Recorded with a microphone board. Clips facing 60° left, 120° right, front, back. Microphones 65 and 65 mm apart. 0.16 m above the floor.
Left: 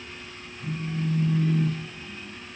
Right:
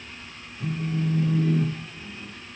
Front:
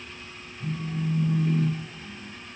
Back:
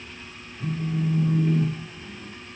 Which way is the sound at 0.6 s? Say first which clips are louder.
Right 3 dB, back 4 dB; 130° right.